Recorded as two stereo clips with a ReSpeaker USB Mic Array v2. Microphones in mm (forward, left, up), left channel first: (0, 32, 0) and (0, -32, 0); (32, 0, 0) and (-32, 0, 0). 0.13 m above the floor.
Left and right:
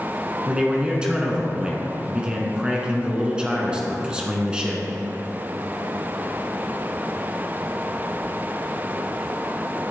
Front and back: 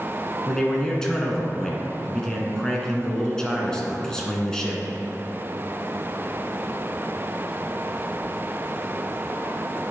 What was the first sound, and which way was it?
A man speaking, 55° right.